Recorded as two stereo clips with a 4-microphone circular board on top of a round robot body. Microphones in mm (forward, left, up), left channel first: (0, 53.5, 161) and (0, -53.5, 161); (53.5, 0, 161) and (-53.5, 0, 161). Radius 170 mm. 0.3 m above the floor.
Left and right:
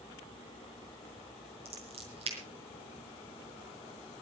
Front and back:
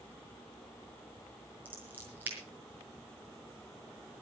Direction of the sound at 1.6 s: 105° right.